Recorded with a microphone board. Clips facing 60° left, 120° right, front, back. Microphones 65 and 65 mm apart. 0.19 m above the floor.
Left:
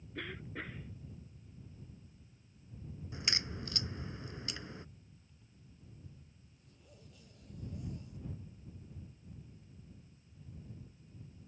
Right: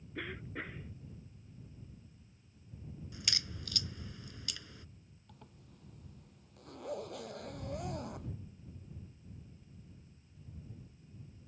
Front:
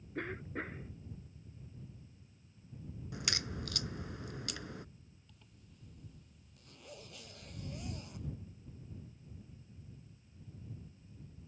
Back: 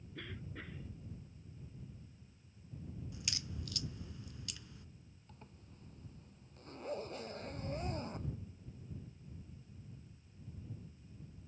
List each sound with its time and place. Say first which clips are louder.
0.1 s a cough: right 1 dB, front 9 dB; 40° right
3.1 s a crack: left 4 dB, front 11 dB; 5° left
5.3 s a zipper: right 5 dB, back 4 dB; 130° right